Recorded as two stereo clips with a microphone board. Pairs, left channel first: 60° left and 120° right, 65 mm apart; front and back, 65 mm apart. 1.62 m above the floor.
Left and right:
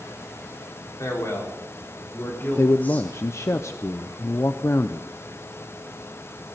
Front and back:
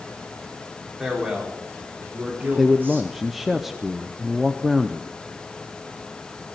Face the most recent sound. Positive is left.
turn(degrees=95)